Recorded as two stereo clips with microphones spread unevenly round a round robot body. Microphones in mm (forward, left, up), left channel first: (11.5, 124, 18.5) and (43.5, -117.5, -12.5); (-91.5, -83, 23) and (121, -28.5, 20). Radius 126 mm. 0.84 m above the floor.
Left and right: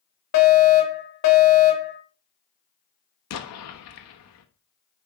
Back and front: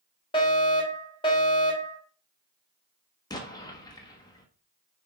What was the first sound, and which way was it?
A fire alarm, 125° left.